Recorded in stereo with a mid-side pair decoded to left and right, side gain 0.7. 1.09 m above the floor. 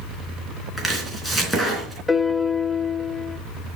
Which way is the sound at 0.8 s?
5° left.